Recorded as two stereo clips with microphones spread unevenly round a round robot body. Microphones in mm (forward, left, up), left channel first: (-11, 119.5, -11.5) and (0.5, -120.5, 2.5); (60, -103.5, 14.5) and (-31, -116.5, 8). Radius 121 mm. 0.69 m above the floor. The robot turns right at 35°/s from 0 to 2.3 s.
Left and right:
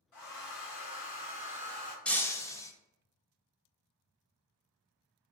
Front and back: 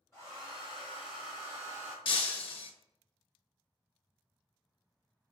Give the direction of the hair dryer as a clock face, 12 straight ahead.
9 o'clock.